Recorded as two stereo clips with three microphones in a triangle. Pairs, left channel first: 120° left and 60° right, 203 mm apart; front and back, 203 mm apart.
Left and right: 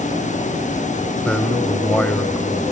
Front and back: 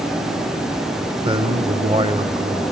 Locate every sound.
1.2 s a man speaking: 160° right, 0.9 m